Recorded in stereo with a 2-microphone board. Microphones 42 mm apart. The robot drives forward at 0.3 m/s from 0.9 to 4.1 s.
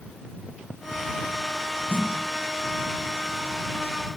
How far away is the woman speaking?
I don't hear a woman speaking.